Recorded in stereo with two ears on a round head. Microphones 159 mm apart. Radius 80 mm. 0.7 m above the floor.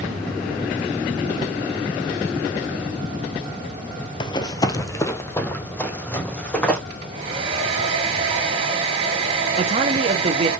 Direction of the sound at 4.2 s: 30° left (ahead or behind).